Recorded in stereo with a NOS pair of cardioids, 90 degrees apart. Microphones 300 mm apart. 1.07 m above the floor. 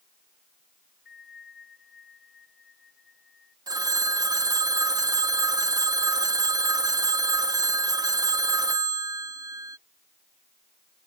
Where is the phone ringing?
15° right.